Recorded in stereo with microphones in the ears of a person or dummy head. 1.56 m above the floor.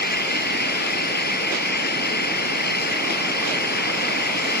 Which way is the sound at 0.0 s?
50° left (ahead or behind).